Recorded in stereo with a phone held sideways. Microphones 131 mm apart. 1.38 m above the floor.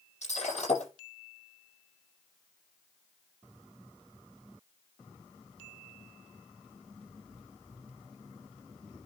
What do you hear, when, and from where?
0.2 s breaking glass: 60° left (ahead or behind), 9 m